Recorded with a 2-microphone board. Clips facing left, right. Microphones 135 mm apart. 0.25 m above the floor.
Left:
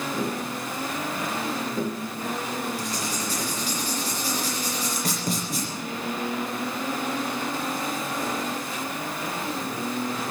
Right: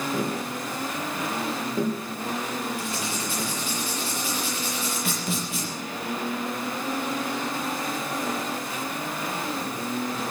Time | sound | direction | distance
0.1 | tapping | 15° right (ahead or behind) | 3 m
2.8 | writing | 40° left (ahead or behind) | 6.5 m